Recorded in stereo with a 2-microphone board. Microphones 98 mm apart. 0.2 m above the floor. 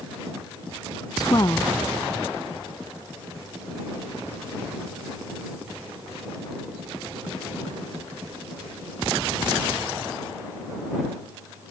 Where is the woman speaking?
40° left (ahead or behind).